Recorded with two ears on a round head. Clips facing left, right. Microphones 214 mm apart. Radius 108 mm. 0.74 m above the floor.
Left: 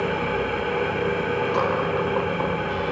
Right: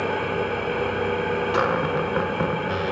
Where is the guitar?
No guitar in this recording.